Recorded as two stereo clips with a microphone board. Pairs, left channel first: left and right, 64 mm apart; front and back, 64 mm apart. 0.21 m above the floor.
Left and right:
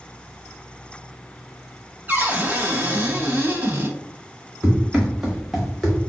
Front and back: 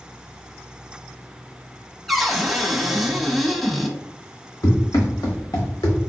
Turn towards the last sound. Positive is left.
turn(degrees=10)